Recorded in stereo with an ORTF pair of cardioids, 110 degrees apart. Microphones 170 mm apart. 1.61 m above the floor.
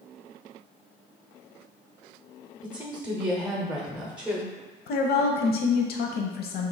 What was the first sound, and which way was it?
A woman speaking, 5° right.